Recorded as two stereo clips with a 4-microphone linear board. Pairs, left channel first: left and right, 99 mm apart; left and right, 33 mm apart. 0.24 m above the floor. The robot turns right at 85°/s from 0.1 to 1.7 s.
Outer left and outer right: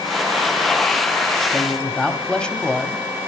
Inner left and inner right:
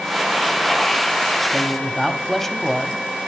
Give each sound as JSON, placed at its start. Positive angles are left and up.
{"t": 1.5, "sound": "a man speaking", "side_deg": 5, "distance_m": 1.0}